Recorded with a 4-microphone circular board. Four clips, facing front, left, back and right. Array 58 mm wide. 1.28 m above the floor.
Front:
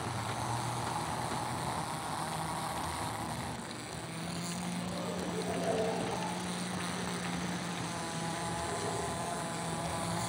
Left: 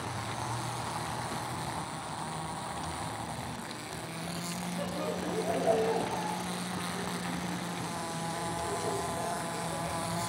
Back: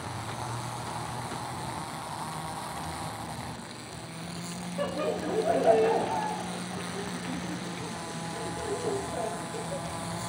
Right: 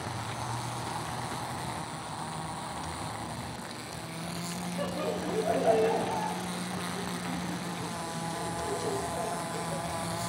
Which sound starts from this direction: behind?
Laughter, at 4.8 s.